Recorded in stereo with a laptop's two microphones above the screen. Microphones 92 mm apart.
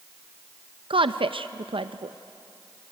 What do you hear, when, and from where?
0.9 s a woman speaking: 70° right (ahead or behind), 0.5 m